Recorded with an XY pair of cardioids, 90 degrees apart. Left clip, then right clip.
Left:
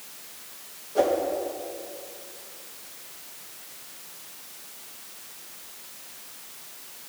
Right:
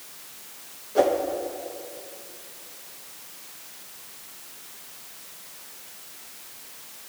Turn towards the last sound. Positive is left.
turn(degrees=-25)